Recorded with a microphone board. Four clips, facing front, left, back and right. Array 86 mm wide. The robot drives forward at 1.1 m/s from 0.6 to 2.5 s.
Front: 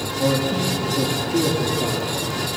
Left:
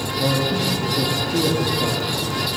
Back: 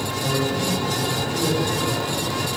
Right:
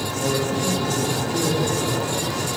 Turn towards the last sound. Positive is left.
turn(degrees=55)